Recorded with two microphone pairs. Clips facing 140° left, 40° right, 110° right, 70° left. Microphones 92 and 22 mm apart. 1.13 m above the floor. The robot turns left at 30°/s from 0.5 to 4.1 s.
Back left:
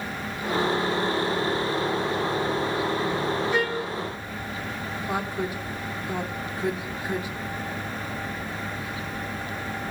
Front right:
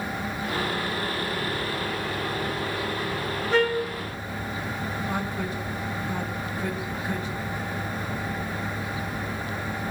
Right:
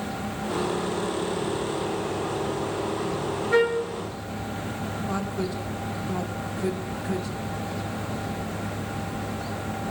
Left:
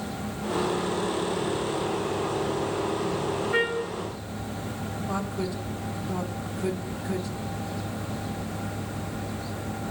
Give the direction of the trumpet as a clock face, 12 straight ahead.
3 o'clock.